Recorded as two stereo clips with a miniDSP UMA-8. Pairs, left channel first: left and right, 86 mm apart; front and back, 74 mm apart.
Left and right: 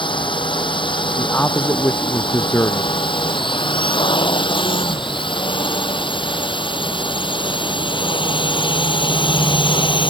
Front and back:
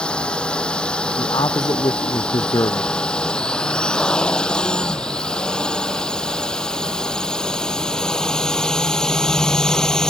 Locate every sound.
0.0 s a drone: 80° left
1.2 s a man speaking: 20° left